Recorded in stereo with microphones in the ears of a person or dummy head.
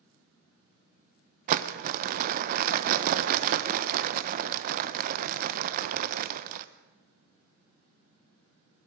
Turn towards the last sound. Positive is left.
turn(degrees=-50)  # may be behind; listen again after turning